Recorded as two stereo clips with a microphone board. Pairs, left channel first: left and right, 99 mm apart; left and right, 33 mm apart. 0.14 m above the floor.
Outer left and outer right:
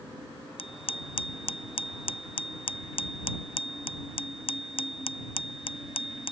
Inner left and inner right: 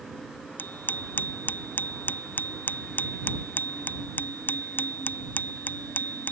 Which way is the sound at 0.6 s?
65° left (ahead or behind).